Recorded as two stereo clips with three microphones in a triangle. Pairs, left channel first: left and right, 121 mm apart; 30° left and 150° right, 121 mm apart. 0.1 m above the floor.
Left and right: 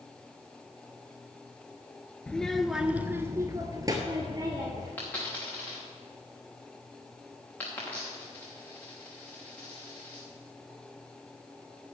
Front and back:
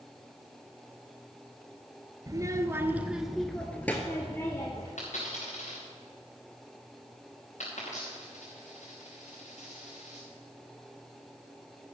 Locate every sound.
2.3 s a child speaking: 170° left, 0.8 m; by 4.9 s 35° right, 1.5 m
5.0 s a dropped coin: 15° left, 5 m